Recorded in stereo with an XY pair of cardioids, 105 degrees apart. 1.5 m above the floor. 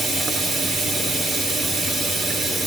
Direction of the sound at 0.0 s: 65° right.